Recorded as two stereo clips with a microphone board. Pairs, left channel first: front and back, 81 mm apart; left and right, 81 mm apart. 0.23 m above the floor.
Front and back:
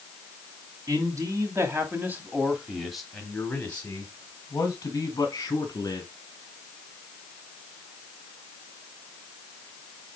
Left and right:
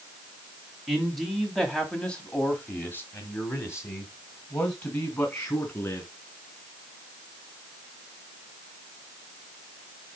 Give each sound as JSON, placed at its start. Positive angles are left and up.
{"t": 0.9, "sound": "a man speaking", "azimuth_deg": -175, "distance_m": 2.0}